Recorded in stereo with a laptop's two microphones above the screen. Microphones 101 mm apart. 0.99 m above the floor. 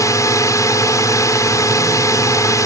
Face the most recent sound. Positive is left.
turn(degrees=30)  # may be behind; listen again after turning